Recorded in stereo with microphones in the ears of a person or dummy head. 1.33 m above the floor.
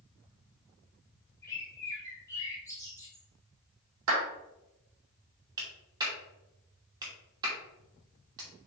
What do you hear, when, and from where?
1.4 s a bird: 20° left (ahead or behind), 1.4 m
4.1 s a clap: 70° right (ahead or behind), 2.5 m
5.6 s a clap: 20° right (ahead or behind), 2.5 m